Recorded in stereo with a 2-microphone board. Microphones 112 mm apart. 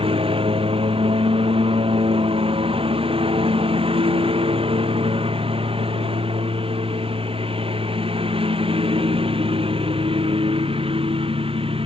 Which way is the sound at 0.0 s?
55° right (ahead or behind).